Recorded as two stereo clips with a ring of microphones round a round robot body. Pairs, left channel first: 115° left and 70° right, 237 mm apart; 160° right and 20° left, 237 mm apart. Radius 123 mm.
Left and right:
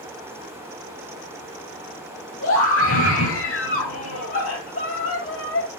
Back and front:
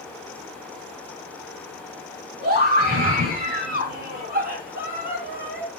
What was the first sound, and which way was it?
A scream, 75° left.